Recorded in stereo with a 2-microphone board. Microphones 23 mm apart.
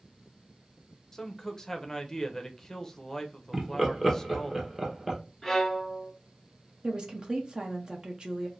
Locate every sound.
1.1 s a man speaking: 20° left (ahead or behind), 0.7 m
3.5 s laughter: 10° right (ahead or behind), 1.1 m
5.4 s a violin: 15° left (ahead or behind), 1.6 m
6.8 s a woman speaking: 30° right (ahead or behind), 0.8 m